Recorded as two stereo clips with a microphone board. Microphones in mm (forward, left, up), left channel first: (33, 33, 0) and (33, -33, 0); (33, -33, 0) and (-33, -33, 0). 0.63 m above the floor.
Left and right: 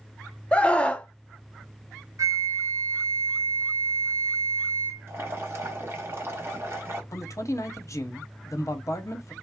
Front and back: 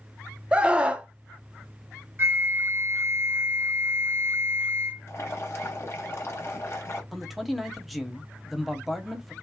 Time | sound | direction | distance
0.5 | a scream | 135° left | 0.5 m
2.2 | a flute | 130° right | 1.2 m
5.1 | boiling | 40° right | 1.1 m
7.1 | a man speaking | 90° left | 0.8 m